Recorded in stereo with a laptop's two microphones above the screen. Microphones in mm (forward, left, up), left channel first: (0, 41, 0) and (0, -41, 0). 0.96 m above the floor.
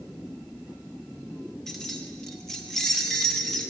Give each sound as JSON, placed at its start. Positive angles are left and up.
{"t": 1.7, "sound": "keys jangling", "side_deg": 5, "distance_m": 0.7}